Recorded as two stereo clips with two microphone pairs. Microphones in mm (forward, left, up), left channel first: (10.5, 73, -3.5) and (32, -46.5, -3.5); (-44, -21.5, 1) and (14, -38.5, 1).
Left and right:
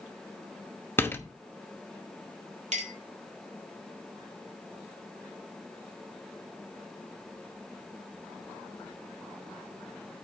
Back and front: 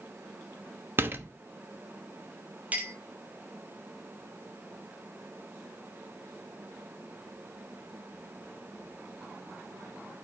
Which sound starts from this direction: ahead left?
A door slam, at 1.0 s.